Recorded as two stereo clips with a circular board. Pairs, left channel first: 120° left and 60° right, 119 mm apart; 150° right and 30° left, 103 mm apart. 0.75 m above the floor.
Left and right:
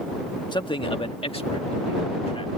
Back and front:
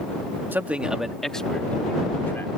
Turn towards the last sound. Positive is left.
turn(degrees=145)